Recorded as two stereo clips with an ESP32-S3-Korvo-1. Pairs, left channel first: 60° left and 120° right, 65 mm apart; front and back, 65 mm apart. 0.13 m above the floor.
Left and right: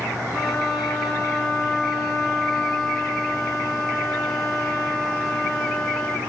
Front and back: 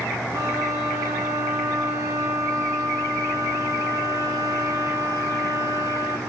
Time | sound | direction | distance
0.3 | a violin | 145° left | 3.5 m